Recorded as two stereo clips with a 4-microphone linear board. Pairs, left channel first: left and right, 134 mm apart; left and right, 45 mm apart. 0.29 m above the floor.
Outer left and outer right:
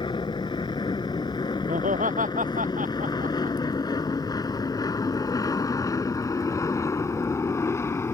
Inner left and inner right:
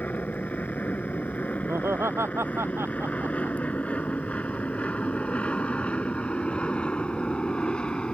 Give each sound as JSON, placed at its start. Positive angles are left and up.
{"t": 0.0, "sound": "an aircraft", "side_deg": 35}
{"t": 1.7, "sound": "laughter", "side_deg": -80}